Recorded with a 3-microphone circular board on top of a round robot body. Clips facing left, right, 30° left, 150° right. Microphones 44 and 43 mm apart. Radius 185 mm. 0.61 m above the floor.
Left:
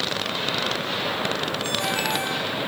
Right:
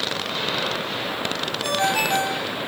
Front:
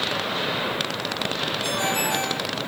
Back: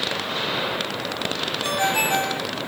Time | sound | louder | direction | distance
1.6 | a ringtone | right 7 dB, back 4 dB | 95° right | 4.5 m